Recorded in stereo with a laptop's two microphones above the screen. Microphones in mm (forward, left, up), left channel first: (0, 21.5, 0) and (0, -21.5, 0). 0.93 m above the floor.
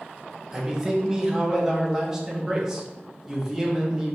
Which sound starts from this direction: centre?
A man speaking, at 0.5 s.